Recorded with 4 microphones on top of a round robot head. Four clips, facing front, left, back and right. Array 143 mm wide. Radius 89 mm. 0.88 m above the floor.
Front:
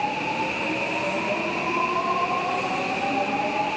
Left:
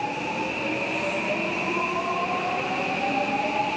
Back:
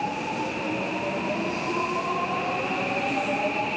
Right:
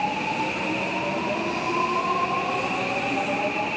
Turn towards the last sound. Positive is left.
No sound to turn to.